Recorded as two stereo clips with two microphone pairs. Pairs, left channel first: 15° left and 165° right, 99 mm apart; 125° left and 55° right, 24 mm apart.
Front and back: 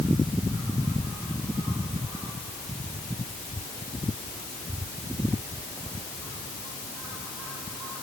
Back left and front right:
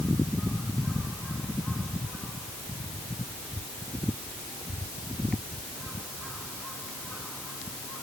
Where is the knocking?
No knocking in this recording.